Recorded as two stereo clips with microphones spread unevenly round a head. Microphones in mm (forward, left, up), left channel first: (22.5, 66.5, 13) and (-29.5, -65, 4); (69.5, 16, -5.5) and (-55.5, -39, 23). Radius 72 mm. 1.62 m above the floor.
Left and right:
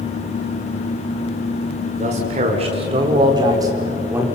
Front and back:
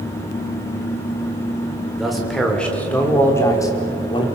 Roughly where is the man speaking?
Right.